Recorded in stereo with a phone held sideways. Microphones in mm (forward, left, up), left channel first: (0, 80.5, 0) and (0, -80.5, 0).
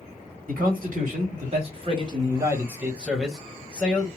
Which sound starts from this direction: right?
A man speaking, at 0.5 s.